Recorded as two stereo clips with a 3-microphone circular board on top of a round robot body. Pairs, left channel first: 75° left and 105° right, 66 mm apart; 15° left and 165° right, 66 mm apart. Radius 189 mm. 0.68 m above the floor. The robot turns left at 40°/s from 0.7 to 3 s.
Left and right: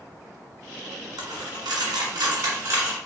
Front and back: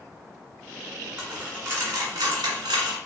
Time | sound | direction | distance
1.2 | a dropped coin | 90° right | 1.4 m